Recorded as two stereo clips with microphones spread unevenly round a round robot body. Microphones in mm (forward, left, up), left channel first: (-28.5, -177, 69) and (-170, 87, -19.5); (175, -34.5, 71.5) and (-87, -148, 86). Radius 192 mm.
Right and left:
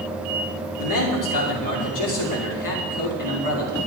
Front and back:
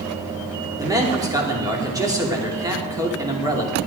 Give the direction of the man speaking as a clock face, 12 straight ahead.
3 o'clock.